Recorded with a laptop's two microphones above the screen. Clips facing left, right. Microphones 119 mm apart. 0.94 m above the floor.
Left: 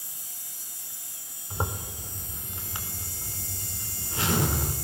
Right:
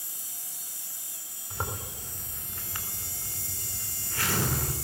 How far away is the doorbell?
I don't hear a doorbell.